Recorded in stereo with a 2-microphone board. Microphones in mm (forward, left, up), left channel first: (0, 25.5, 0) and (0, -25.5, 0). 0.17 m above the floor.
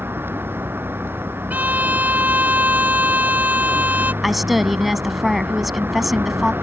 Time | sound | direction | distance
0.0 | a vehicle | 45° right (ahead or behind) | ?
1.5 | a violin | 35° right (ahead or behind) | ?
4.2 | a woman speaking | centre (ahead or behind) | ?